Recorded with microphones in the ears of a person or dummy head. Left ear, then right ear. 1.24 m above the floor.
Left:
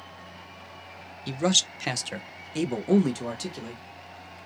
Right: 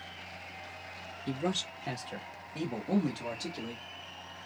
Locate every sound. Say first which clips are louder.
1.3 s a man speaking: left 10 dB; 40° left (ahead or behind), 0.7 m; by 3.8 s 50° left (ahead or behind), 1.2 m